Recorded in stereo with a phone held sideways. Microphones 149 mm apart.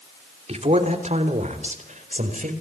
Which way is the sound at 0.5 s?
55° right (ahead or behind).